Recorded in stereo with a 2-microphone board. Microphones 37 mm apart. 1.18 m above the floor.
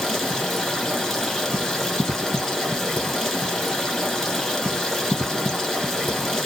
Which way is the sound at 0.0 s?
10° left (ahead or behind).